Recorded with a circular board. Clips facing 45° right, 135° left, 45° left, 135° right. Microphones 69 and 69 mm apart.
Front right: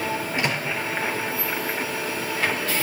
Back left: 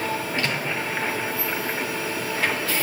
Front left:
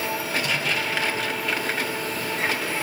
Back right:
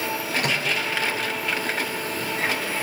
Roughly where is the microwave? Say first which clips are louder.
Front right 1 dB, back right 4 dB; behind right.